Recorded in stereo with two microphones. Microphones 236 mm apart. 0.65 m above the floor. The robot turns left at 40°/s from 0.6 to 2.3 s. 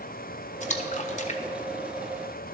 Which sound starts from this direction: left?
A splash, at 0.6 s.